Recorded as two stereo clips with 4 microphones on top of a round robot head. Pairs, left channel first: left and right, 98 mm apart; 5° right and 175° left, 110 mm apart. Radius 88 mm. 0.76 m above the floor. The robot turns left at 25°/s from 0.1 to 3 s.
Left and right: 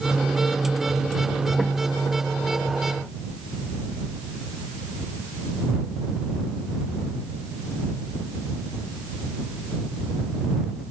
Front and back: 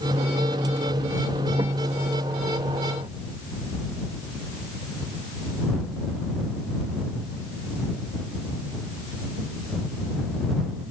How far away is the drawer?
I don't hear a drawer.